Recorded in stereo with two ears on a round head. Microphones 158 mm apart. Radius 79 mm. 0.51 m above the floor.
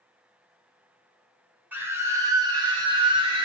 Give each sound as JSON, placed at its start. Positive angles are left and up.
{"t": 1.7, "sound": "a scream", "side_deg": -10, "distance_m": 1.1}